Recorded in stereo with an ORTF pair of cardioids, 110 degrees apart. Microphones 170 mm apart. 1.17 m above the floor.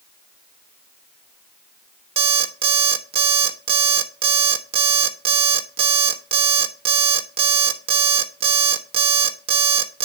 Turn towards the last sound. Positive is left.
turn(degrees=-35)